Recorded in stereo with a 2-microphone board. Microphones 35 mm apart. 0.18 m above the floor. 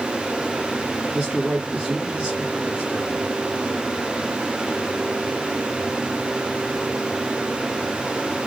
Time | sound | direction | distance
1.1 | a man speaking | 20° right (ahead or behind) | 2.5 m